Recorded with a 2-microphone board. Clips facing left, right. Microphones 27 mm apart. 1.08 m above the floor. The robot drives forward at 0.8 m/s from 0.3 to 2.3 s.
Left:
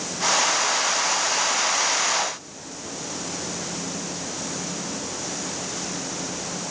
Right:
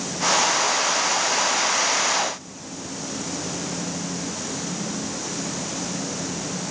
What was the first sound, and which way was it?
Only background noise.